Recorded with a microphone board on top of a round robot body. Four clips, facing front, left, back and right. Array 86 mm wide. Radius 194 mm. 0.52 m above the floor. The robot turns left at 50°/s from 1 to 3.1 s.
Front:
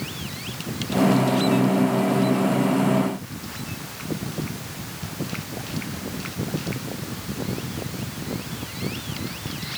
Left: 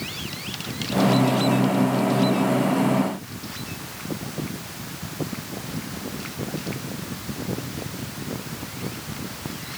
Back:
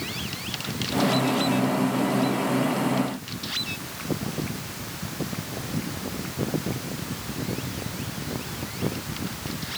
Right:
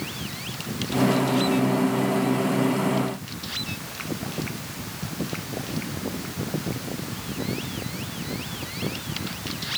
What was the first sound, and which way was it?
Only background noise.